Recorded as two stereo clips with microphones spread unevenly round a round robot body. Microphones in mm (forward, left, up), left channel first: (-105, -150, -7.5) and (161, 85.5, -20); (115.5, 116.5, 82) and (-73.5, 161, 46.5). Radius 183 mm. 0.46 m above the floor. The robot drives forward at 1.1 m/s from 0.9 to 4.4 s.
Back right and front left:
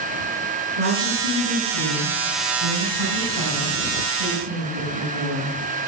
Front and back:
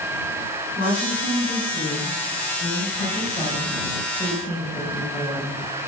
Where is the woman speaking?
30° left, 6 m; by 5.5 s 70° left, 3 m.